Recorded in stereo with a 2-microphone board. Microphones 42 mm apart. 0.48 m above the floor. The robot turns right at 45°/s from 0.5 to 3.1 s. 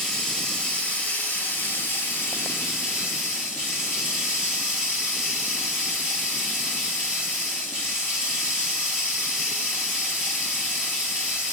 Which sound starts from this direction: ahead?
Running water, at 0.0 s.